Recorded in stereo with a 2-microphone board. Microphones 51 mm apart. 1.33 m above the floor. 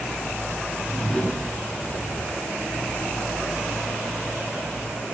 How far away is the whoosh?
About 4.5 m.